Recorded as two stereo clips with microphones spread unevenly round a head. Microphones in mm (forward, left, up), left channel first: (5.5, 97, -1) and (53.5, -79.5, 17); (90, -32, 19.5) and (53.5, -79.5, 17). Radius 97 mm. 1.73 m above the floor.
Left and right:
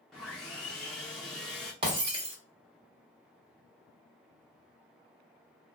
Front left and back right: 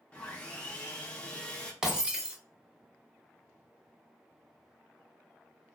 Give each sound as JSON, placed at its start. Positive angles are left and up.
{"t": 0.1, "sound": "sawing", "azimuth_deg": 10, "distance_m": 0.7}
{"t": 1.8, "sound": "breaking glass", "azimuth_deg": -55, "distance_m": 1.2}